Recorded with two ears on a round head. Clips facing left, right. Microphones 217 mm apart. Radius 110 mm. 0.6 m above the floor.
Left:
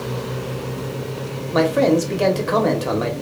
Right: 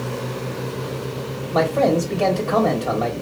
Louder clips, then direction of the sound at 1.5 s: Left 2 dB; 20° left (ahead or behind).